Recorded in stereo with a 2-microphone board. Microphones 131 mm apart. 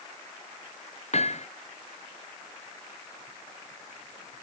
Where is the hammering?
55° left (ahead or behind).